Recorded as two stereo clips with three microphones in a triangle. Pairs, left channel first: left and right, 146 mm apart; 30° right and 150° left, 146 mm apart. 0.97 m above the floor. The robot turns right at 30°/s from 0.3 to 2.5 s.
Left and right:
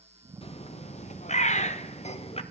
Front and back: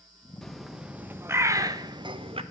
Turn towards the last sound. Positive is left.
turn(degrees=120)